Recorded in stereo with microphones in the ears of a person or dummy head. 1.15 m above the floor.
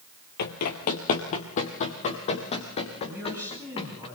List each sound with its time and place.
0.4 s running footsteps: 50° left (ahead or behind), 1.9 m; by 4.1 s 30° left (ahead or behind), 4.5 m
3.1 s a man speaking: 10° right (ahead or behind), 9.5 m